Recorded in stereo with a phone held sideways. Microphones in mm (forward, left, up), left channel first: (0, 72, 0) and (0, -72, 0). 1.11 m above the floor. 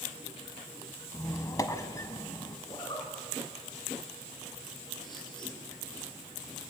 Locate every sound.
1.1 s a squeak: 25° left (ahead or behind), 1.2 m
2.7 s a zipper: 30° left (ahead or behind), 3.5 m